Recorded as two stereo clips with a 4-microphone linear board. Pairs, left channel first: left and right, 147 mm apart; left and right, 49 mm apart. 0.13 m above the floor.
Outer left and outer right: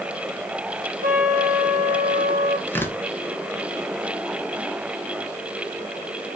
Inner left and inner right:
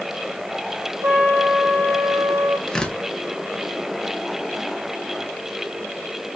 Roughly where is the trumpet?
Right.